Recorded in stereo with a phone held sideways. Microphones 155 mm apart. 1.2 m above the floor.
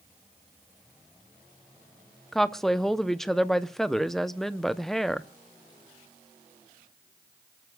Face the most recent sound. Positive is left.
turn(degrees=0)  # may be behind; listen again after turning